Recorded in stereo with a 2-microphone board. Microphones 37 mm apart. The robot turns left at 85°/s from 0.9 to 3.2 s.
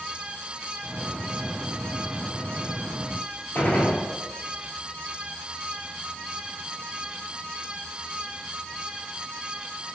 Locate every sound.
3.5 s a gunshot: 50° left (ahead or behind), 1.2 m